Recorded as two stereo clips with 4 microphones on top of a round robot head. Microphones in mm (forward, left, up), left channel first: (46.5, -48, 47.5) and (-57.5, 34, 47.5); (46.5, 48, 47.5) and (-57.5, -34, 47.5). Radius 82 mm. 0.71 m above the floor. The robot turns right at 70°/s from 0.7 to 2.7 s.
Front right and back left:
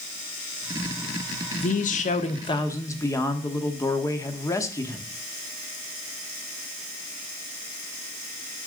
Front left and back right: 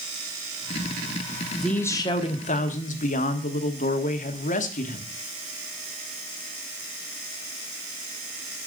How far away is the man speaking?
About 1.3 m.